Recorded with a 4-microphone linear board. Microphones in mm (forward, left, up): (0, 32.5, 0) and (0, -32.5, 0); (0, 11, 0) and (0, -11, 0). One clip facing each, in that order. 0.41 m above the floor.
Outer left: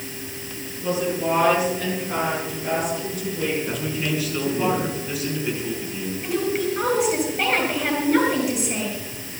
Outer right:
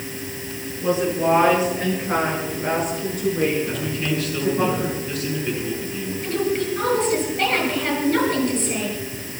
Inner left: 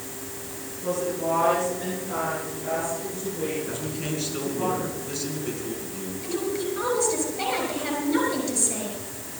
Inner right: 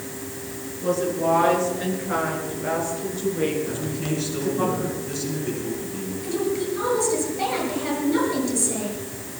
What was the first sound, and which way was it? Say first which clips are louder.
A woman speaking: outer right 3 dB, inner right 4 dB; 30° right (ahead or behind).